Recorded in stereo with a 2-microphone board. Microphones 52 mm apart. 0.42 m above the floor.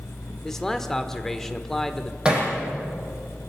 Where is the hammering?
15° right (ahead or behind), 7.5 m.